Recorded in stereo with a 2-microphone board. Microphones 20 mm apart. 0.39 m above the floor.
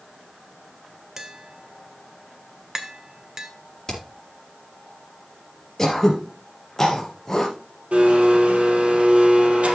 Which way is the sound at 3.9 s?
25° left (ahead or behind).